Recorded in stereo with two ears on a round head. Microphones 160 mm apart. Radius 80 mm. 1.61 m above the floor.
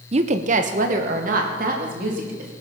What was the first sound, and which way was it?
A woman speaking, 35° right (ahead or behind).